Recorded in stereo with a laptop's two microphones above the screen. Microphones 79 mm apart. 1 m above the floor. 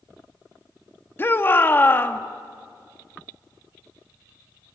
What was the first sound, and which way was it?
A shout, 30° left (ahead or behind).